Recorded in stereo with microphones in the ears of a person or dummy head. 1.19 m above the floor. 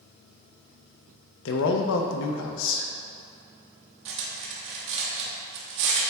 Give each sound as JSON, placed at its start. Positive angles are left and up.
{"t": 1.4, "sound": "a man speaking", "side_deg": 65, "distance_m": 0.6}
{"t": 4.0, "sound": "cutlery clinking", "side_deg": -65, "distance_m": 1.2}